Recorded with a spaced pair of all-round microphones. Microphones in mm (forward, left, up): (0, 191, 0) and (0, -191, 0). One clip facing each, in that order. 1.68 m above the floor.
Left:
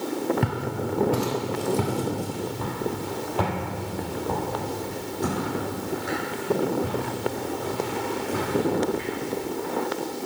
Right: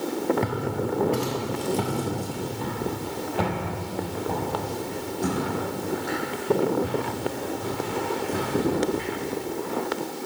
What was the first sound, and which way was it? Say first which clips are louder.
Footsteps: right 1 dB; 20° left (ahead or behind).